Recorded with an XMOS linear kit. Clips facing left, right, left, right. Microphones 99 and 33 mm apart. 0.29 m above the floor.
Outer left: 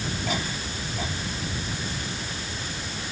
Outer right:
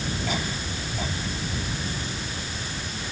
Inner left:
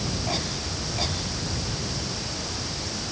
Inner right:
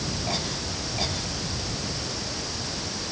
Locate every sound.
Only background noise.